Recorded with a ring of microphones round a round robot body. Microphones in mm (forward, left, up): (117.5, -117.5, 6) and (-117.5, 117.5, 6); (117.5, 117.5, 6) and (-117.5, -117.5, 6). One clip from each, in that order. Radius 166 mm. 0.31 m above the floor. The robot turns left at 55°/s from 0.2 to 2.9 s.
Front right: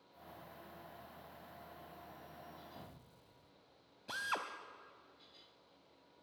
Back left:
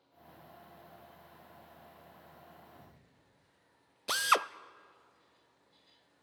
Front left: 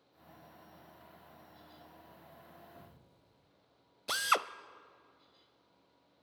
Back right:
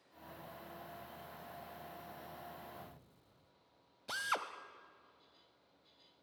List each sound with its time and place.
2.8 s an explosion: 55° right, 1.8 m; by 3.5 s 65° right, 1.8 m
4.1 s a drill: 110° left, 0.6 m